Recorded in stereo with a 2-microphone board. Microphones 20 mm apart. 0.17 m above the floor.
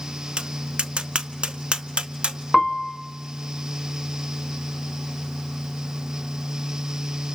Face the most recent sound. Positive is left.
turn(degrees=15)  # may be behind; listen again after turning